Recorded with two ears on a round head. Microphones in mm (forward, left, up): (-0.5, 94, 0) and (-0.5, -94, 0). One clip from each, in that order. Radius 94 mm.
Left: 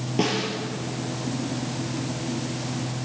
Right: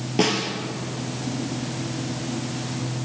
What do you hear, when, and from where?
0.2 s a snare drum: 20° right (ahead or behind), 2.5 m